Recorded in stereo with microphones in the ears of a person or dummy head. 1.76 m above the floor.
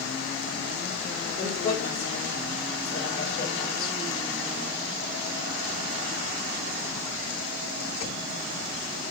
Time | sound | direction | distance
1.4 | a man speaking | 20° left (ahead or behind) | 5.5 m